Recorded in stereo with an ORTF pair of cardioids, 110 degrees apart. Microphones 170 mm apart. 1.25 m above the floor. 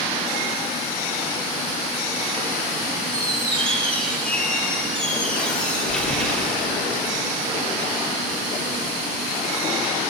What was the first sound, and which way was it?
A squeak, 5° left.